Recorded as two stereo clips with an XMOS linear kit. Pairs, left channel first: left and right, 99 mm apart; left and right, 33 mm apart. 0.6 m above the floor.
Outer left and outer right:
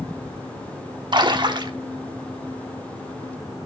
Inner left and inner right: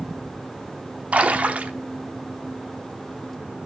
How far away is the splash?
About 0.8 m.